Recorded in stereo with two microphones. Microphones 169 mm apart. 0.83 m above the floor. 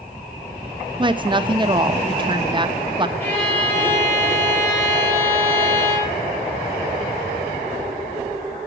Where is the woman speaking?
30° right (ahead or behind), 0.6 m.